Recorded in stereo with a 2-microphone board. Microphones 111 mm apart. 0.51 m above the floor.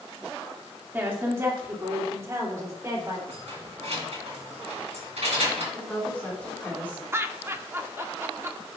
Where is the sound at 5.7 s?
15° left (ahead or behind), 4 m.